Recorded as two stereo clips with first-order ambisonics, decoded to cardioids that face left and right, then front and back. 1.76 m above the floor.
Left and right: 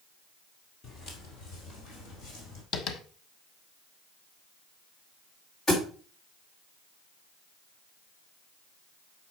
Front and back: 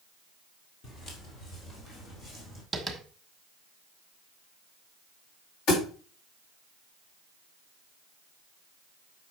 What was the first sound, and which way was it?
Footsteps, 35° left.